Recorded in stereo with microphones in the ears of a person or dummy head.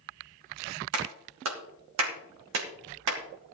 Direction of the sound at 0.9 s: 80° right.